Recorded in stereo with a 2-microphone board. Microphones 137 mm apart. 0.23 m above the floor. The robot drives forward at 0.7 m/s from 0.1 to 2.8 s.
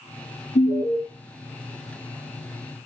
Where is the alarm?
75° left (ahead or behind), 5.5 m; by 1.0 s 80° left, 5.5 m.